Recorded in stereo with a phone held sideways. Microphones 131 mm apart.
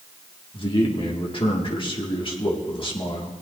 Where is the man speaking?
40° left (ahead or behind), 2.0 m.